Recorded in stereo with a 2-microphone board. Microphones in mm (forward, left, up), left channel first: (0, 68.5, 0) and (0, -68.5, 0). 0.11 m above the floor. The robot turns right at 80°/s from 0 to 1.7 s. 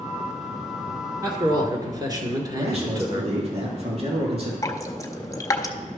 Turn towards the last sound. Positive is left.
turn(degrees=25)  # may be behind; listen again after turning